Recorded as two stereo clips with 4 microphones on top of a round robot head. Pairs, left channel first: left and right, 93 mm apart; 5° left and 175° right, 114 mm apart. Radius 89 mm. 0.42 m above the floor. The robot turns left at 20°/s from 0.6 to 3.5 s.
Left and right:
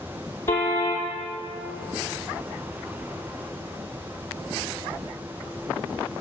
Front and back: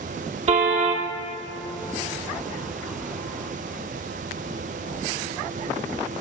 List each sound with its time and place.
0.5 s a car horn: 160° left, 5 m; by 1.1 s 150° left, 5 m